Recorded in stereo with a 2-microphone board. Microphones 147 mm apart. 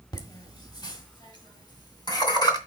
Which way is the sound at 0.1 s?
25° left (ahead or behind).